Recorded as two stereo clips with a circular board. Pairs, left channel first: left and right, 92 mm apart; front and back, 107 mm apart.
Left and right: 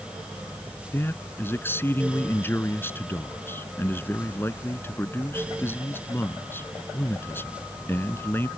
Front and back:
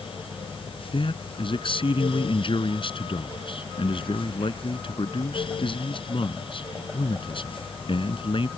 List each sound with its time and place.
0.9 s a man speaking: 25° left